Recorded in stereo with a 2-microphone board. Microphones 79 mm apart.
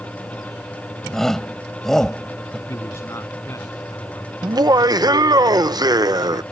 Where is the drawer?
I don't hear a drawer.